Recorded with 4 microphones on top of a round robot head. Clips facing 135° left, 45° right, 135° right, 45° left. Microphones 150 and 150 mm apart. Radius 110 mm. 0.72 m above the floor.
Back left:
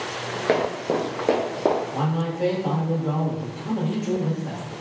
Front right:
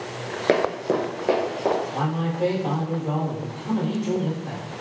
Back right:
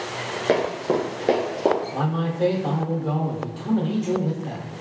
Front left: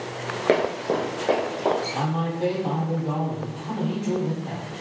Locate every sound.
0.5 s running footsteps: 15° right, 0.7 m; by 1.8 s 170° right, 1.0 m
1.9 s a man speaking: 145° right, 1.4 m